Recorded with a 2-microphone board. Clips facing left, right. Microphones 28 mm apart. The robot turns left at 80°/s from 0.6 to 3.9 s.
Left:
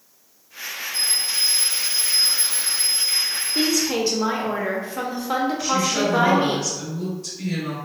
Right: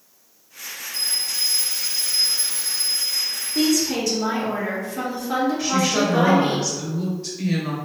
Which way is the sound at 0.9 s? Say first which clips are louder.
Left 1 dB; 100° right.